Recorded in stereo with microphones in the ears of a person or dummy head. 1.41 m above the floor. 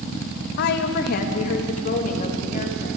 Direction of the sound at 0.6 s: 55° left (ahead or behind).